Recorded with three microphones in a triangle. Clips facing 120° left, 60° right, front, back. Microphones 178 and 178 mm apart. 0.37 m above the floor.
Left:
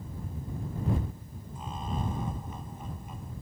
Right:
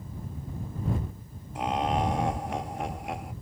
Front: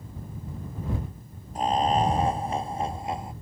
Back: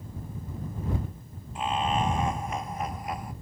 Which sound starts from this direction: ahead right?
Laughter, at 1.6 s.